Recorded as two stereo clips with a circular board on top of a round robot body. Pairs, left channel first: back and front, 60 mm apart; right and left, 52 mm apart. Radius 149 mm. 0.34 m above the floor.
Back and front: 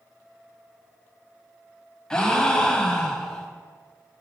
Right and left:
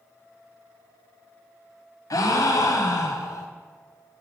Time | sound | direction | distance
2.1 | a gasp | 100° right | 0.7 m